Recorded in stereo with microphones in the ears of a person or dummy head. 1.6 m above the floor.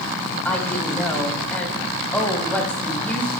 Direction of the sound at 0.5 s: 5° left (ahead or behind).